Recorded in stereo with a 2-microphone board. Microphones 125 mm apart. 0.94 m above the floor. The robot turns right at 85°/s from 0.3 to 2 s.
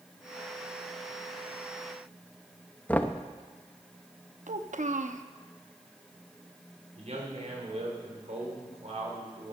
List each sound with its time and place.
2.9 s knocking: 15° left (ahead or behind), 0.7 m
4.5 s a child speaking: 80° right, 0.8 m
7.0 s a man speaking: 60° right (ahead or behind), 3.5 m